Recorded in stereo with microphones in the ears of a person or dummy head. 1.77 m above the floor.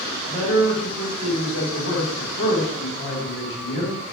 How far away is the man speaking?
About 1.4 m.